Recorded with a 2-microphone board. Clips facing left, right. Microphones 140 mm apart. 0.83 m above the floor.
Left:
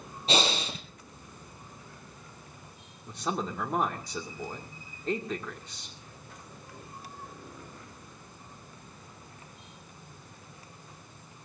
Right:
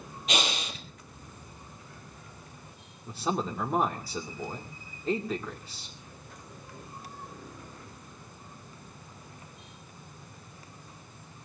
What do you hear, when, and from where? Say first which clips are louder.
0.3 s breathing: left 4 dB; 35° left (ahead or behind), 3.5 m
3.1 s a man speaking: right 2 dB; 5° right (ahead or behind), 2.0 m